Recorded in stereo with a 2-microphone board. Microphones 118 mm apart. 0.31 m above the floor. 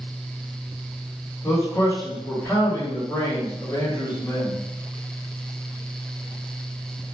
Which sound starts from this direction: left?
A man speaking, at 1.4 s.